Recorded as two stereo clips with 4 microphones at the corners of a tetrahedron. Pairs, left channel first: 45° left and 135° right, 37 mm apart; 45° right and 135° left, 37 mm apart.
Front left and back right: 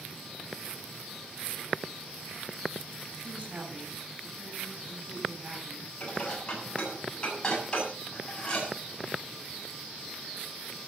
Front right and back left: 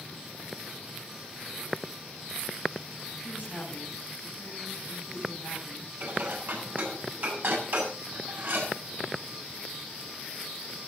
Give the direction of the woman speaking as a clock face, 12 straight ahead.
3 o'clock.